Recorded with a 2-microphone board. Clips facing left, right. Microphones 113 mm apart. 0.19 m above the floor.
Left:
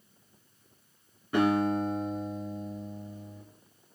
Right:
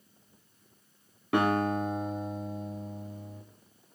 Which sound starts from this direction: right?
A guitar, at 1.3 s.